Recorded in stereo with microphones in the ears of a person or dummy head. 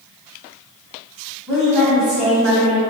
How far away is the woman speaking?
About 0.8 m.